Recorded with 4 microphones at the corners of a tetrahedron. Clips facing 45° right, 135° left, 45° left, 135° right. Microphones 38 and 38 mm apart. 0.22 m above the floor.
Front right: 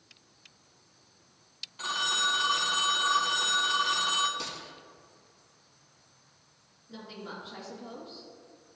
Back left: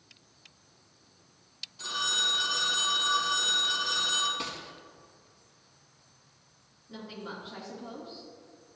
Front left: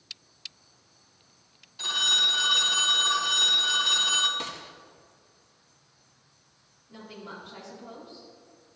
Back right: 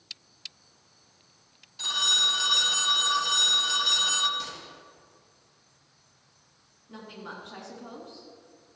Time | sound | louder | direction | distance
1.8 | a phone ringing | front right 1 dB, front left 1 dB | 35° right | 0.9 m
4.4 | a gunshot | back left 2 dB, front left 2 dB | 75° left | 1.1 m
6.9 | a woman speaking | back left 1 dB, back right 1 dB | 145° right | 3 m